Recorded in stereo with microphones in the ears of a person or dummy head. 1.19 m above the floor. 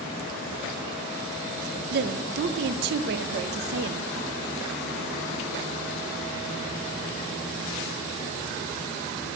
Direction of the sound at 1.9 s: 60° right (ahead or behind).